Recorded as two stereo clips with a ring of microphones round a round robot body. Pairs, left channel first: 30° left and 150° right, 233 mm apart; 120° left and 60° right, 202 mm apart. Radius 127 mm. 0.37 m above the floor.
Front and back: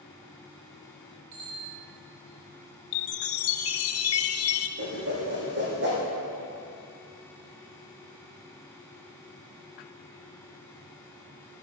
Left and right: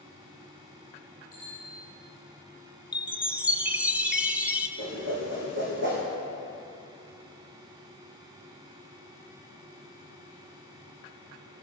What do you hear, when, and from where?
1.3 s a bicycle bell: 165° right, 5 m
2.9 s a chime: 25° left, 1.1 m
4.8 s a whoosh: 105° right, 5 m